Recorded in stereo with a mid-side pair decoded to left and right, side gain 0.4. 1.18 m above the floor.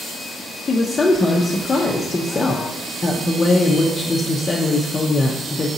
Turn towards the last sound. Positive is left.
turn(degrees=40)